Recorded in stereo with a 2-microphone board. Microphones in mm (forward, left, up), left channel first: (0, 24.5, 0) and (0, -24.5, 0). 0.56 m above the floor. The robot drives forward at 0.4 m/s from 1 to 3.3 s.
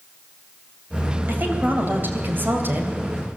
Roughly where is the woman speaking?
Right.